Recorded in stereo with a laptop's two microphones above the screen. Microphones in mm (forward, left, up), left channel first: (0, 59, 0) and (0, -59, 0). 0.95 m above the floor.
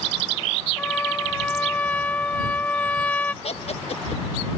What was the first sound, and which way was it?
A trumpet, 15° left (ahead or behind).